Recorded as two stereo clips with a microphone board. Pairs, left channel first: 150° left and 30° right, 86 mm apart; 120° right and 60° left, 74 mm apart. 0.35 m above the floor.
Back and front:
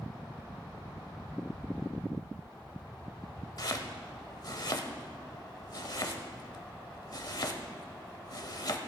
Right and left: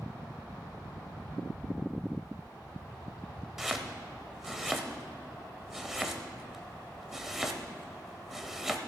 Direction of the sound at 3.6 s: 145° left.